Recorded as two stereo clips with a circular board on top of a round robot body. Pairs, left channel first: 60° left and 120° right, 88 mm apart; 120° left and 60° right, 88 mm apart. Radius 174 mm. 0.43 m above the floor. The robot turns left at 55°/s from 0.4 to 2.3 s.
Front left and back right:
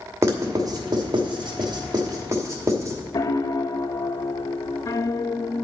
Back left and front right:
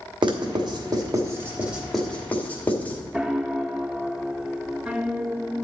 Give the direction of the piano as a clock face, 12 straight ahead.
11 o'clock.